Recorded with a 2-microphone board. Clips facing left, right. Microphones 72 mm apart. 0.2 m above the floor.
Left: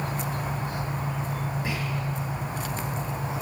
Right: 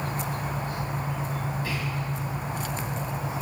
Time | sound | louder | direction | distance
1.6 | whispering | left 1 dB | 20° left (ahead or behind) | 1.0 m